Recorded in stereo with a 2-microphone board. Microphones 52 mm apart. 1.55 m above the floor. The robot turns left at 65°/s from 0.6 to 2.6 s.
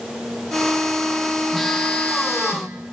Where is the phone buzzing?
Straight behind, 1.0 m; by 2.9 s 110° left, 1.0 m.